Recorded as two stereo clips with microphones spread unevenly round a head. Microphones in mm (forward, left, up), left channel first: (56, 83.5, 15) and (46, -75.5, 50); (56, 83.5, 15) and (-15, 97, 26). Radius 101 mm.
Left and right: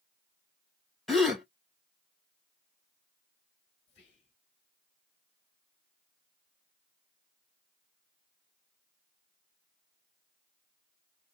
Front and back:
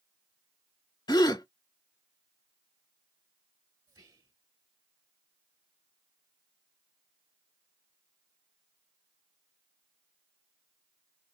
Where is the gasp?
Straight ahead, 1.4 m.